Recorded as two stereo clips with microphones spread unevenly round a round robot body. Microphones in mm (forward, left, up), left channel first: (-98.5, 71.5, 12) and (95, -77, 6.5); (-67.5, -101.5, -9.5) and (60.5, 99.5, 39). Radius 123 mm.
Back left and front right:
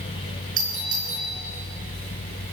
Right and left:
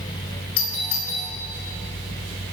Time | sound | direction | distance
0.6 | a doorbell | 95° right | 7.5 m